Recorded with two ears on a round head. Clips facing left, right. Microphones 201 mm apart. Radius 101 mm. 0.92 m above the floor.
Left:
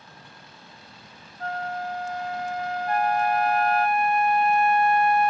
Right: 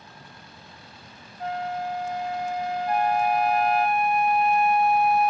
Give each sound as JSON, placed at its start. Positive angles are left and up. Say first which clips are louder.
{"t": 1.4, "sound": "a flute", "louder": "right 2 dB", "side_deg": -10, "distance_m": 0.7}
{"t": 2.9, "sound": "a flute", "louder": "even", "side_deg": 0, "distance_m": 1.0}